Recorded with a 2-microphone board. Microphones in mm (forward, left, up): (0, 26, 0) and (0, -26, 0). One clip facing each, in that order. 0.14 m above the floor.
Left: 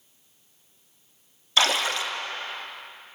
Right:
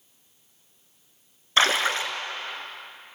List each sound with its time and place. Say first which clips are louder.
1.6 s a splash: right 2 dB; 35° right (ahead or behind), 1.7 m